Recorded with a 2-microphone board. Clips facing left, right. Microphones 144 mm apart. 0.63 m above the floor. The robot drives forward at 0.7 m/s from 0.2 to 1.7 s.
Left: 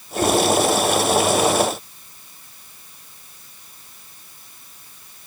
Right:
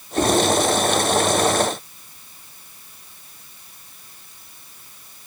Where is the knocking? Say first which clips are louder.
Even; 65° right (ahead or behind), 5 m.